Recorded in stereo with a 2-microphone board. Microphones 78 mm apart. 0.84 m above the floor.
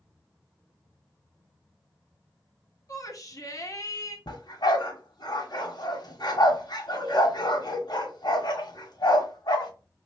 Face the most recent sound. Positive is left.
turn(degrees=60)  # may be behind; listen again after turning